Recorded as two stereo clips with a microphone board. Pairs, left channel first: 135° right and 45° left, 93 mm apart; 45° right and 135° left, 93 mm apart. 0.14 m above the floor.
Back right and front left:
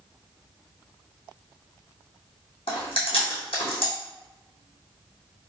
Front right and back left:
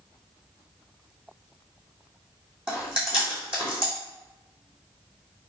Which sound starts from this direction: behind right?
Chewing, at 2.7 s.